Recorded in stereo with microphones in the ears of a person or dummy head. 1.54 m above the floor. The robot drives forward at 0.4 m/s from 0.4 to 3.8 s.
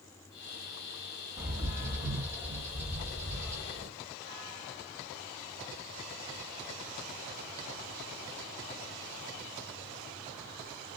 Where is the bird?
10° right (ahead or behind), 1.5 m; by 3.9 s 5° right (ahead or behind), 2 m.